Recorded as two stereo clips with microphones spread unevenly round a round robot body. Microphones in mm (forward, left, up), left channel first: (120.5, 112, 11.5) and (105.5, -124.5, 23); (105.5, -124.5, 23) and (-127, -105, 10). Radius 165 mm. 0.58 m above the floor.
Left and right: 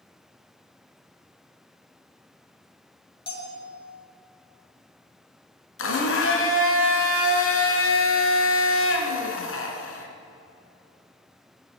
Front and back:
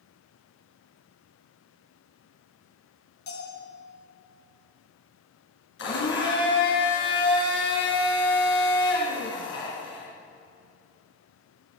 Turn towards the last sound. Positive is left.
turn(degrees=55)